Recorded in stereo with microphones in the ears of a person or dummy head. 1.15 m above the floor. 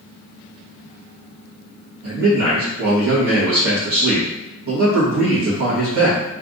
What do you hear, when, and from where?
2.0 s a man speaking: 55° right (ahead or behind), 1.4 m